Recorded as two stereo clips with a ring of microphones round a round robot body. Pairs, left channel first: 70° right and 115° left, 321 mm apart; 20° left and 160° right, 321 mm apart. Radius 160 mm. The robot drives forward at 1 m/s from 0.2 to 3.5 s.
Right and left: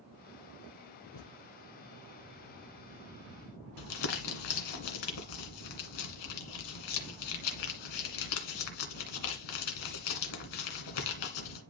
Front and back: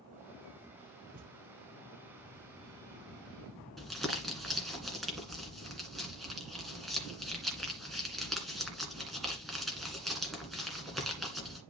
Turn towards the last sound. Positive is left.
turn(degrees=-65)